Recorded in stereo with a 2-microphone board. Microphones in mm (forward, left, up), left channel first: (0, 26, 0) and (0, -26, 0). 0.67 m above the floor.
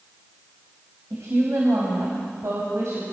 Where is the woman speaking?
75° right (ahead or behind), 4.5 m; by 3.0 s 60° right (ahead or behind), 5 m.